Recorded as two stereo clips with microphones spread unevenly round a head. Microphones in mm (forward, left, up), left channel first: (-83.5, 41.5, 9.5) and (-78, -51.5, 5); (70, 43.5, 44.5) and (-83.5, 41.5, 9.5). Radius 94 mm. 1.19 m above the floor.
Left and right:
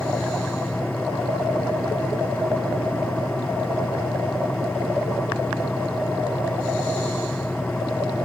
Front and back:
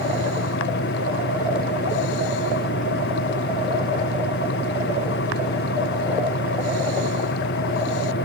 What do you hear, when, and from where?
0.0 s a fan: 10° left